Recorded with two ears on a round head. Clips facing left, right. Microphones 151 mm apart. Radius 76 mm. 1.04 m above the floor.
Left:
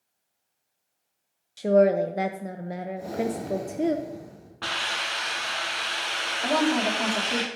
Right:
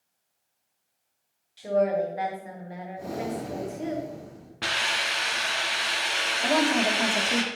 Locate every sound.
1.6 s a woman speaking: 50° left (ahead or behind), 0.6 m
3.0 s breathing: 10° left (ahead or behind), 3 m
4.6 s a hiss: 20° right (ahead or behind), 2.0 m
6.4 s a woman speaking: 5° right (ahead or behind), 1.9 m